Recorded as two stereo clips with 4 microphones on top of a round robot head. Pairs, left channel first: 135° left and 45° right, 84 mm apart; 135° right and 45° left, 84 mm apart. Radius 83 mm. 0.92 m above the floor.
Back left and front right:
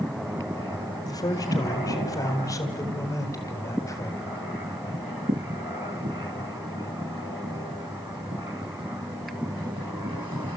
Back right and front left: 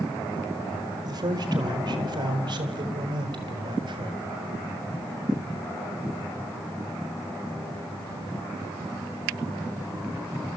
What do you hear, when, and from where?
1.0 s a man speaking: 90° left, 4.5 m; by 4.4 s 80° left, 7.5 m